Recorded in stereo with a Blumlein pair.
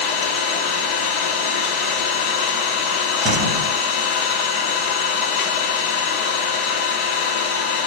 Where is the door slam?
30° right, 1.2 m.